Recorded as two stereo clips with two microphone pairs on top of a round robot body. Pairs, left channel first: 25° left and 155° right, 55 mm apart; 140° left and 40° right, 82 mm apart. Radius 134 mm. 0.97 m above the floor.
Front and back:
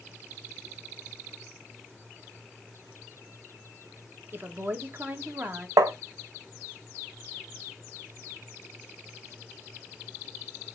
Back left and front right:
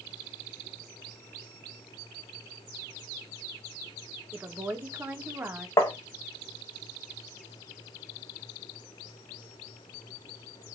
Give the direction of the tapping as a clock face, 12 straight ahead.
6 o'clock.